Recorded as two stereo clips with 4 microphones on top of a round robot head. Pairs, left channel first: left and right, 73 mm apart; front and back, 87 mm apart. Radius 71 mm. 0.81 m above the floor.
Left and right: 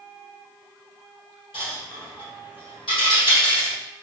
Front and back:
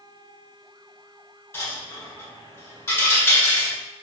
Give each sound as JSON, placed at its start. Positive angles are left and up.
{"t": 1.5, "sound": "a dropped coin", "azimuth_deg": 60, "distance_m": 1.6}